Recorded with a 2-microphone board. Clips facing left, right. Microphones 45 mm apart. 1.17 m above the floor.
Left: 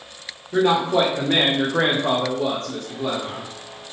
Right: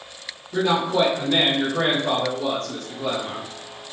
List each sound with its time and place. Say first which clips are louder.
0.5 s a man speaking: left 3 dB; 50° left (ahead or behind), 0.9 m; by 3.5 s 10° left (ahead or behind), 0.9 m